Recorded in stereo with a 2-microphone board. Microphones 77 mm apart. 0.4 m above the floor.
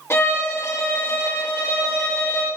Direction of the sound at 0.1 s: 35° left (ahead or behind).